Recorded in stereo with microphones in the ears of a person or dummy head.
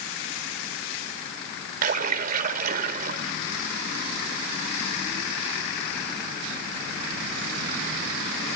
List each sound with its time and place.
1.8 s a splash: 40° right (ahead or behind), 1.9 m